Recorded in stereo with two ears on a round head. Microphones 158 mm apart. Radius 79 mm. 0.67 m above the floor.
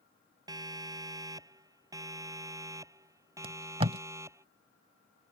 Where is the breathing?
No breathing in this recording.